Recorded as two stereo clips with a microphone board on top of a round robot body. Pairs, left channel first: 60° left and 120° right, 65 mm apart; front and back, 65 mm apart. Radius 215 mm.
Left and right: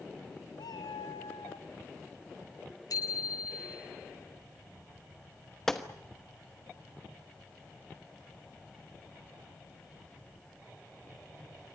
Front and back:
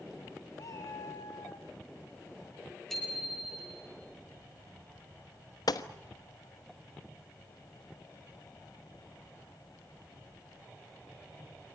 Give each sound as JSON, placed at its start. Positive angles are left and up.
{"t": 0.6, "sound": "a cat meowing", "azimuth_deg": 40, "distance_m": 1.3}
{"t": 2.9, "sound": "a bicycle bell", "azimuth_deg": 85, "distance_m": 8.0}
{"t": 5.7, "sound": "a gunshot", "azimuth_deg": -25, "distance_m": 1.2}